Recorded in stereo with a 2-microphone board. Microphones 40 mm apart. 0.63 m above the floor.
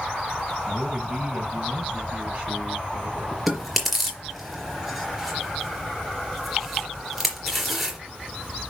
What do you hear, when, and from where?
0.7 s a man speaking: 20° right (ahead or behind), 4 m; by 3.4 s 35° right (ahead or behind), 6 m
3.5 s chewing: 5° right (ahead or behind), 3.5 m